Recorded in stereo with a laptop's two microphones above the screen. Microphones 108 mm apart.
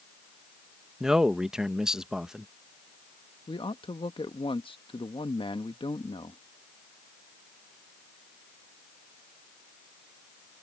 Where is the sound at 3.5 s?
55° left (ahead or behind).